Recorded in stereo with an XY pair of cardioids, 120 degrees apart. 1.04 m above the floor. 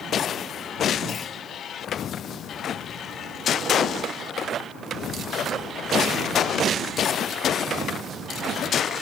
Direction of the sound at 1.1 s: 35° left.